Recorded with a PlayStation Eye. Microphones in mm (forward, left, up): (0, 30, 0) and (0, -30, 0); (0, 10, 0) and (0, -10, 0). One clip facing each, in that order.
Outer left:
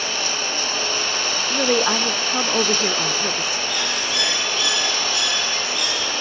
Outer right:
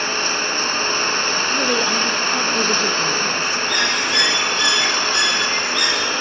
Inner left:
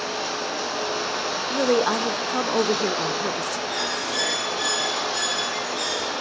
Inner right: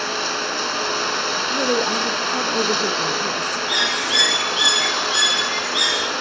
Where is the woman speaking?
25° left (ahead or behind), 0.7 m.